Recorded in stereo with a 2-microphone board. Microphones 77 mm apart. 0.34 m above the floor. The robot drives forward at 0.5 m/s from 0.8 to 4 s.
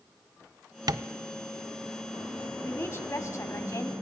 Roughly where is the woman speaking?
Left.